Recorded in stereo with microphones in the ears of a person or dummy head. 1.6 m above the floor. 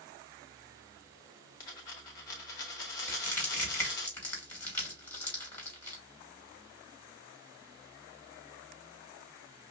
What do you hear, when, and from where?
1.6 s a dropped coin: 20° left (ahead or behind), 1.0 m
3.1 s crushing: 10° left (ahead or behind), 3 m